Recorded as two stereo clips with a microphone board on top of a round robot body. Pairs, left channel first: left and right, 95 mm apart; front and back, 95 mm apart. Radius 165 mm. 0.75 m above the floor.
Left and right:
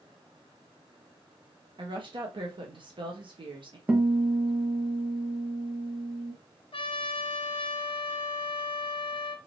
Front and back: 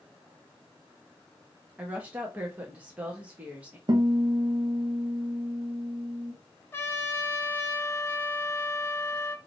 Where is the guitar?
160° right, 1.3 m.